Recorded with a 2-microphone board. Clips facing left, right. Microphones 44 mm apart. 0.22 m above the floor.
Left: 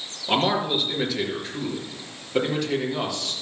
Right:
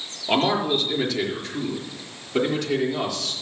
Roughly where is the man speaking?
Centre.